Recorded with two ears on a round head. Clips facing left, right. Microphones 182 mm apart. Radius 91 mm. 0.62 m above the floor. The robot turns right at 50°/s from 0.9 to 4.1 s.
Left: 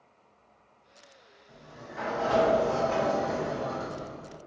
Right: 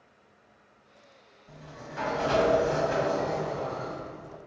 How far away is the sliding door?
About 1.3 m.